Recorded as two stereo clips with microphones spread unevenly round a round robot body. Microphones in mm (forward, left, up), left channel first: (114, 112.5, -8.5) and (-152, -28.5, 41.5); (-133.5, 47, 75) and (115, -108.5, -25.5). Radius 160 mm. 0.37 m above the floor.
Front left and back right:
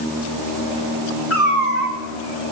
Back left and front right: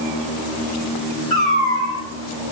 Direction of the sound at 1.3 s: 70° left.